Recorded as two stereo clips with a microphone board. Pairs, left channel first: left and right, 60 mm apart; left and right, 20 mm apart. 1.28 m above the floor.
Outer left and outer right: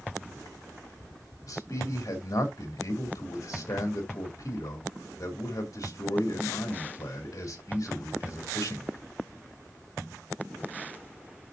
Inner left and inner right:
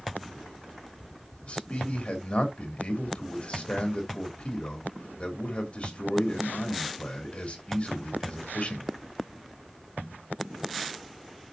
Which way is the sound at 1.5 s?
60° left (ahead or behind).